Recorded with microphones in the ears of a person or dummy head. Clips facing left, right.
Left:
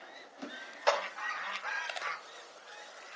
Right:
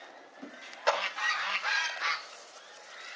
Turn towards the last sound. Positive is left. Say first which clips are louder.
# even
turn(degrees=0)  # may be behind; listen again after turning